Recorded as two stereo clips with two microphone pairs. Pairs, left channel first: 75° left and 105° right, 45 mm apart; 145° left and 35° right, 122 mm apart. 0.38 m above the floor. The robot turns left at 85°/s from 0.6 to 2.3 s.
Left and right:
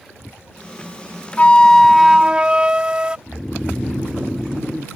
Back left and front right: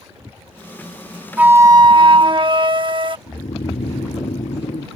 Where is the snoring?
165° left.